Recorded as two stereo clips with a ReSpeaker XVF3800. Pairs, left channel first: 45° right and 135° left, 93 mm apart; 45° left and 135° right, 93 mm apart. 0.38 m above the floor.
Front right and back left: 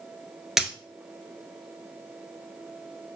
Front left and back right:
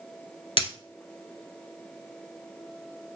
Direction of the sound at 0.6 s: 50° left.